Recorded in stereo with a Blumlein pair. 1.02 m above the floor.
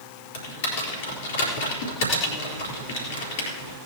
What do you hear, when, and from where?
0.3 s typing on a keyboard: 55° left, 4 m